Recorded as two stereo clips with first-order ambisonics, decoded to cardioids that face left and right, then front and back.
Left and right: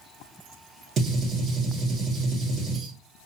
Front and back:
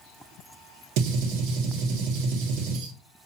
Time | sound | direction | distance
1.0 | a gunshot | 155° right | 1.0 m